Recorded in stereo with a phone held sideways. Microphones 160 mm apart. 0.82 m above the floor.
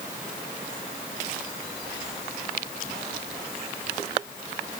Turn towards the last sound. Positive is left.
No sound to turn to.